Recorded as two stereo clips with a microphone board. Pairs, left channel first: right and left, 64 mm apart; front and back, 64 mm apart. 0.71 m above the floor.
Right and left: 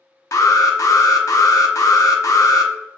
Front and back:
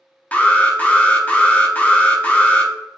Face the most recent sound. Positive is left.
turn(degrees=-65)